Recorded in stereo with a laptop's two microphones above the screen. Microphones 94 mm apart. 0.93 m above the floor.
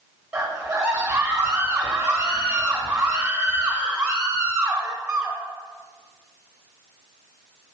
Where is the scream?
10° right (ahead or behind), 1.4 m.